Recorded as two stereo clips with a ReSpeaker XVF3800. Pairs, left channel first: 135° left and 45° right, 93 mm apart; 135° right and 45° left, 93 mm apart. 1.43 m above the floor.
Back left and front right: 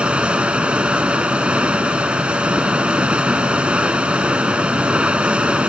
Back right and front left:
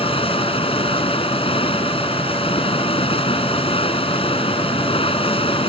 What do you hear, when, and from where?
0.0 s running water: 125° right